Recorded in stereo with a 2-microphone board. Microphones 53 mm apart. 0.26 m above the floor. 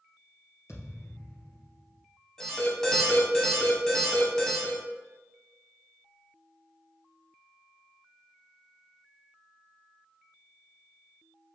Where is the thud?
60° left (ahead or behind), 2.5 m.